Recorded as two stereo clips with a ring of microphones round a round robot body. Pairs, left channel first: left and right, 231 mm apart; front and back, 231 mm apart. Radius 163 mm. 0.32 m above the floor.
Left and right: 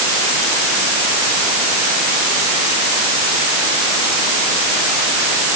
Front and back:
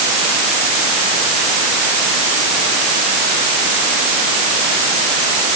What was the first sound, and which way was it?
Only background noise.